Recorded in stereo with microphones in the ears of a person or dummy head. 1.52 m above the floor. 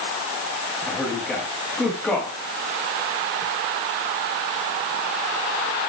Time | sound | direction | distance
0.9 | a man speaking | 5° left (ahead or behind) | 3 m